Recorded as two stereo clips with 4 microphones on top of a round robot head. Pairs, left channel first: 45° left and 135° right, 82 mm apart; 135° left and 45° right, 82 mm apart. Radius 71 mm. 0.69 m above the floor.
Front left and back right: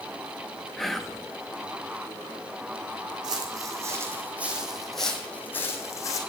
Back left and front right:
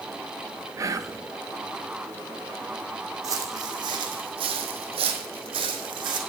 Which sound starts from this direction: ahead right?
Whispering, at 0.8 s.